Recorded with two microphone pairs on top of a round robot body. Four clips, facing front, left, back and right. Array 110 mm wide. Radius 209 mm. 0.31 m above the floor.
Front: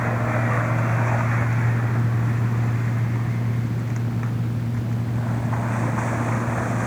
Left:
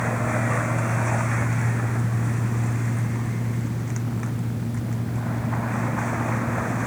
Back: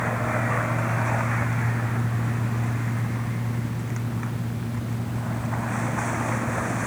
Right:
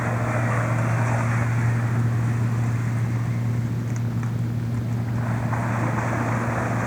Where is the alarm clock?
No alarm clock in this recording.